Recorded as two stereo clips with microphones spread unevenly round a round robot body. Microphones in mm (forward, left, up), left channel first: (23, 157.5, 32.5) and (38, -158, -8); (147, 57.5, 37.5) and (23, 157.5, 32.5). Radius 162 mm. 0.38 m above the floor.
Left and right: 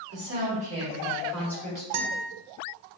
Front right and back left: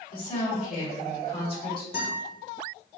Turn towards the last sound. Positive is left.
turn(degrees=-90)